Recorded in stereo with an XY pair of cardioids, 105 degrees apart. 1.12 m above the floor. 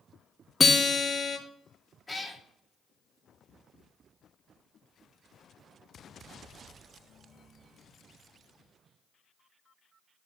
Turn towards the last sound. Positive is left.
turn(degrees=15)